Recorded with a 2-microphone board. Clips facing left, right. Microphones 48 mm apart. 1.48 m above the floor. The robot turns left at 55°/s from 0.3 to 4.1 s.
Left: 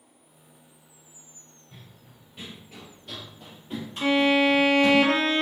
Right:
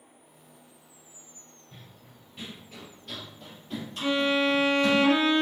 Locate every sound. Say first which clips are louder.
1.7 s running footsteps: left 1 dB; centre (ahead or behind), 1.6 m; by 5.0 s 25° left (ahead or behind), 2 m
4.0 s a violin: left 4 dB; 70° left (ahead or behind), 0.8 m; by 5.4 s 65° left (ahead or behind), 0.8 m